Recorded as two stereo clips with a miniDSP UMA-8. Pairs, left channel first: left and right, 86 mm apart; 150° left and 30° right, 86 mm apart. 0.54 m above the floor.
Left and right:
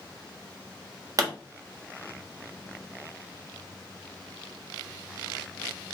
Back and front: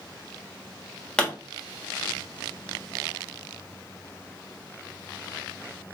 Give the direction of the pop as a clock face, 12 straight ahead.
4 o'clock.